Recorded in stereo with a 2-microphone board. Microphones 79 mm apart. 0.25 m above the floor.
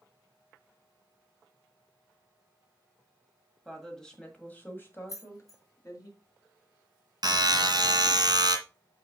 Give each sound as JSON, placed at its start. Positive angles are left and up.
{"t": 3.6, "sound": "a woman speaking", "side_deg": 0, "distance_m": 1.8}
{"t": 5.1, "sound": "keys jangling", "side_deg": 45, "distance_m": 1.2}
{"t": 7.2, "sound": "a buzzer", "side_deg": -60, "distance_m": 1.6}